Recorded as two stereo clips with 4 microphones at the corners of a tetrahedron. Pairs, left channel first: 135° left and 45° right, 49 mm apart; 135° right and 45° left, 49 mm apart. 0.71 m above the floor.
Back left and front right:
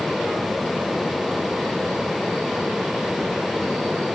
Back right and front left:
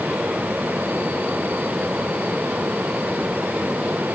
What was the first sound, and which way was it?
Only background noise.